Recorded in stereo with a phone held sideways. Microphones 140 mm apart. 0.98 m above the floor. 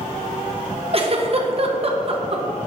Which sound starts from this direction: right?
A giggle, at 0.9 s.